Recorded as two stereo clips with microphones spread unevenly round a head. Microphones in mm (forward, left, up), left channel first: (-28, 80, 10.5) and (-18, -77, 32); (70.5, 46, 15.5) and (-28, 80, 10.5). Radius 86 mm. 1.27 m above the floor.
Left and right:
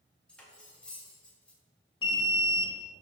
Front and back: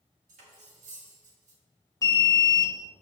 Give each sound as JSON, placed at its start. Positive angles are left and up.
{"t": 0.3, "sound": "cutlery clinking", "azimuth_deg": 180, "distance_m": 1.3}
{"t": 2.0, "sound": "an alarm", "azimuth_deg": 35, "distance_m": 0.7}